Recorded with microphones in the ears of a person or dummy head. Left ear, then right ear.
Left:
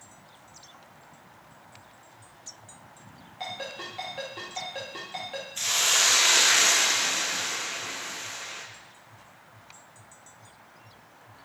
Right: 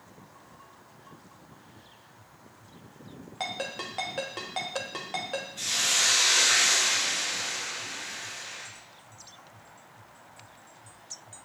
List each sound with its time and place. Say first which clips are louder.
3.4 s a ringtone: right 2 dB; 20° right (ahead or behind), 0.7 m
5.6 s a hiss: left 3 dB; 55° left (ahead or behind), 0.6 m